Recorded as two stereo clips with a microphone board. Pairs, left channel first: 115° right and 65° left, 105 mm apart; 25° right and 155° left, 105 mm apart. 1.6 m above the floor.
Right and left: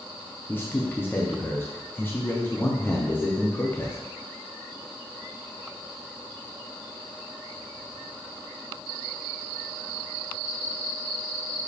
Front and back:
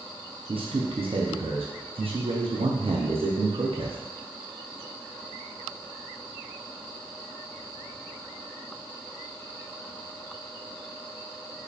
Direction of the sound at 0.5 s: Straight behind.